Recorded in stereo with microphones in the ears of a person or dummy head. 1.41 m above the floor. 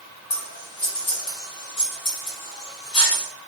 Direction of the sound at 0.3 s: 25° left (ahead or behind).